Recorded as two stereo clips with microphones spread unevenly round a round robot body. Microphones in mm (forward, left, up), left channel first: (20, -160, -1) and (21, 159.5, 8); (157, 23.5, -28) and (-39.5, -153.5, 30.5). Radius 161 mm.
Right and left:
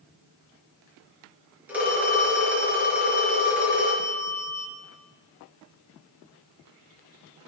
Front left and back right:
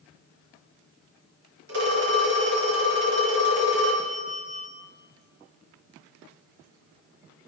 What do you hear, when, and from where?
1.7 s a phone ringing: 175° left, 4.5 m